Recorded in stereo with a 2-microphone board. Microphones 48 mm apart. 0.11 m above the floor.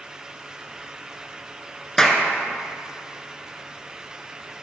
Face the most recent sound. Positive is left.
turn(degrees=10)  # may be behind; listen again after turning